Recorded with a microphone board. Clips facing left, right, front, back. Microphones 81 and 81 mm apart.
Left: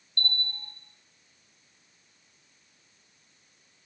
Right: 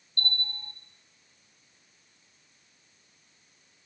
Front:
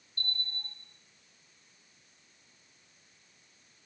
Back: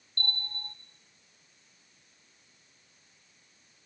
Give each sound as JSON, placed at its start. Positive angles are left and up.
{"t": 0.2, "sound": "a bell", "azimuth_deg": -165, "distance_m": 4.0}